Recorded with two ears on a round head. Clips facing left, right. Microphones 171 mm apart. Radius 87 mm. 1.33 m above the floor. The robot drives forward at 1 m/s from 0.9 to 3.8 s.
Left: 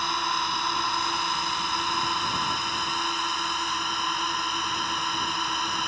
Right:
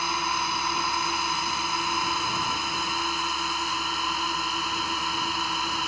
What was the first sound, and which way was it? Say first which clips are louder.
A drone: even; 5° right (ahead or behind).